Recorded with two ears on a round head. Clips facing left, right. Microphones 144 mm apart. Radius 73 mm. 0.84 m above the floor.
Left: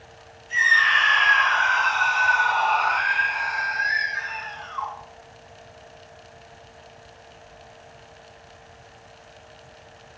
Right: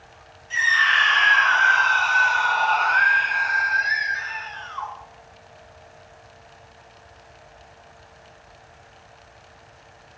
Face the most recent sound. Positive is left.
turn(degrees=0)  # may be behind; listen again after turning